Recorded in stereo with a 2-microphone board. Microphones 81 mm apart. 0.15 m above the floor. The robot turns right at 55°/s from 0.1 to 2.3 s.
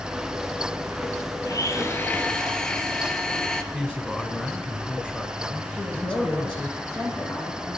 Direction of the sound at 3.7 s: 15° left (ahead or behind).